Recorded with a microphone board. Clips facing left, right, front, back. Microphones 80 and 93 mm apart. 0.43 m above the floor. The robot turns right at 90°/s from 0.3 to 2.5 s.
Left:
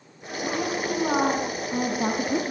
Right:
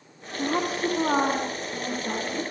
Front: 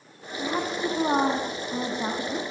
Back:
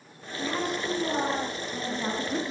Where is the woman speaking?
80° right, 4.5 m; by 2.5 s 110° left, 4.5 m.